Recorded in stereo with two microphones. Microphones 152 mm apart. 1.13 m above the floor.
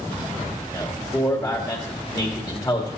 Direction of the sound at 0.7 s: 30° left (ahead or behind).